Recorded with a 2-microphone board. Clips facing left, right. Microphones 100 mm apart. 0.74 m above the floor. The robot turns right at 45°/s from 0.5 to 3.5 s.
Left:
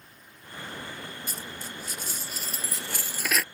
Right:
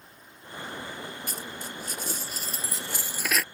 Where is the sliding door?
No sliding door in this recording.